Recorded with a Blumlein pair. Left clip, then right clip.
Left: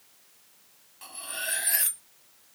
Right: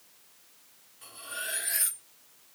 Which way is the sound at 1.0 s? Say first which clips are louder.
Left 3 dB; 55° left.